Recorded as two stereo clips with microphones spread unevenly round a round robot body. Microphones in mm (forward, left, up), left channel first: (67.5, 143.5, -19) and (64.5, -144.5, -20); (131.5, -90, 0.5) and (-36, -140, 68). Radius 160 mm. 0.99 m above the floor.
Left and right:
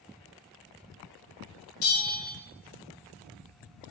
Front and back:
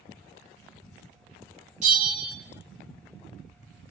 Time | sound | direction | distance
1.8 | a bell | 125° left | 2 m